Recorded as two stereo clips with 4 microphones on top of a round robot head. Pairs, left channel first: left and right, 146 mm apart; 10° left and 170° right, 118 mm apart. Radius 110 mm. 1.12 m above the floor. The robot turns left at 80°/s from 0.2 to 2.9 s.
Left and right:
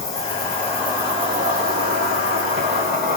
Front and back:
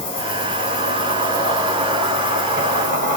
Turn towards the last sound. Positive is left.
turn(degrees=-175)